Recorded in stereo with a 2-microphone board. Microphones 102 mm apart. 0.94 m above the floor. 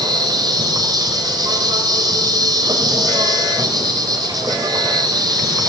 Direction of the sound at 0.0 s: 40° right (ahead or behind).